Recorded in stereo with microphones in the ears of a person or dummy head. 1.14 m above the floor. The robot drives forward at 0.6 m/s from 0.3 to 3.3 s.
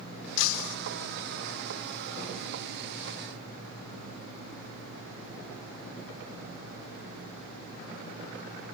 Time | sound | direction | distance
0.4 | breaking glass | 70° left (ahead or behind) | ?